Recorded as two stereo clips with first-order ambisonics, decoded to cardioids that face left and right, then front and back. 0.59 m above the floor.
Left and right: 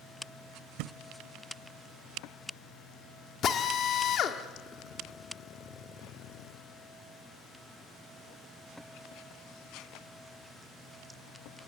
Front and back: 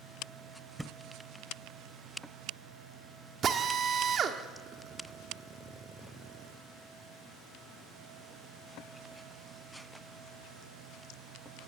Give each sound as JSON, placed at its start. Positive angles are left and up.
{"t": 0.8, "sound": "a thud", "azimuth_deg": -95, "distance_m": 0.9}
{"t": 3.4, "sound": "a drill", "azimuth_deg": 135, "distance_m": 1.5}